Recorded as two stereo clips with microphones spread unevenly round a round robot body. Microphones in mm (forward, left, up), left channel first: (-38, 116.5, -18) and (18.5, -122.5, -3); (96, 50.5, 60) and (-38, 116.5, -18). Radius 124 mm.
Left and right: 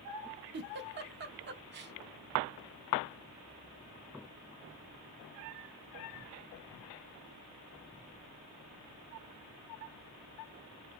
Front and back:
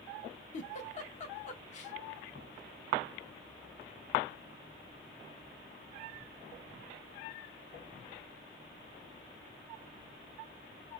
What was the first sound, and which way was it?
A giggle, 30° right.